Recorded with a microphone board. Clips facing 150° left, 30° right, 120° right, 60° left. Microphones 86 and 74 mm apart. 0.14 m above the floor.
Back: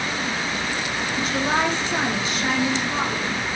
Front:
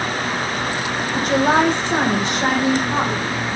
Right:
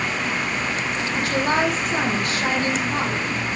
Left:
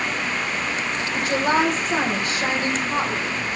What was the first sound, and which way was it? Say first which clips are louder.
A woman speaking: front 7 dB, left 1 dB; straight ahead.